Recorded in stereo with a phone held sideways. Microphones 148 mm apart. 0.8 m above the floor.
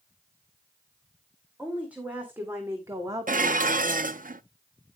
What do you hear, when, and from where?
1.6 s a woman speaking: 10° right (ahead or behind), 2.5 m; by 4.3 s 60° right (ahead or behind), 0.9 m
3.3 s dishes clattering: 70° right (ahead or behind), 0.5 m